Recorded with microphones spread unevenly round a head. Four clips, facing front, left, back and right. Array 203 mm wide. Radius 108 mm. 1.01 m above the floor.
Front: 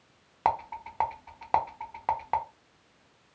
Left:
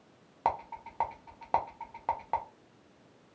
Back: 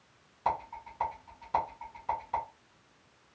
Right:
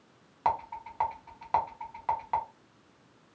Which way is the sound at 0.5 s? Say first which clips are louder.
Right 2 dB, front 4 dB; 25° left.